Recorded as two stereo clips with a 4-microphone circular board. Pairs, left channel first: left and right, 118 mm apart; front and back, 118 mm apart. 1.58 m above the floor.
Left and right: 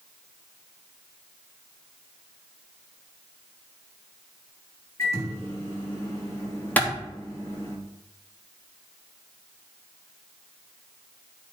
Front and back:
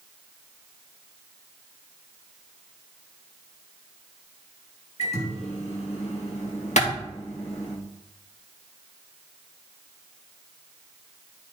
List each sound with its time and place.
5.0 s a microwave: 25° left, 2.5 m
6.8 s a clap: 15° left, 2.5 m